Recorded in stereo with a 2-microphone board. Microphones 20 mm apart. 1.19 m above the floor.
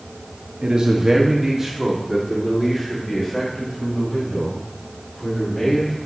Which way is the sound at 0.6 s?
55° right (ahead or behind).